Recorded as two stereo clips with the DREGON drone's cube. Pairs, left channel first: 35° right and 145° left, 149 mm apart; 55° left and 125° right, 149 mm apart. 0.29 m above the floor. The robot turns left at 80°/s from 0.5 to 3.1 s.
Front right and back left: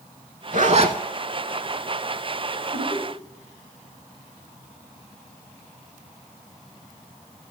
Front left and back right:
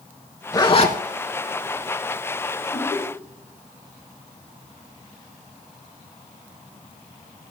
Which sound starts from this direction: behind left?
A zipper, at 0.5 s.